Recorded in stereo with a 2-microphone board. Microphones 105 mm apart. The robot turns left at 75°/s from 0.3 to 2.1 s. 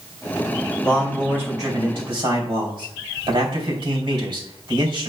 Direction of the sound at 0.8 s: 15° left.